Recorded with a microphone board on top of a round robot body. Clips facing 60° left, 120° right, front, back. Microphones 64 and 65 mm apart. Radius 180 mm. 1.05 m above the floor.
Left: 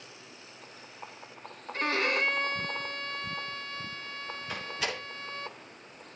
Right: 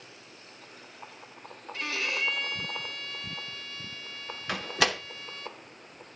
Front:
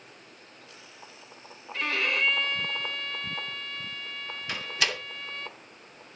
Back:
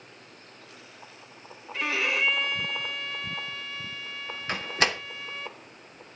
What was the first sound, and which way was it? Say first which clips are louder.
A violin: left 4 dB, back 1 dB; 95° left.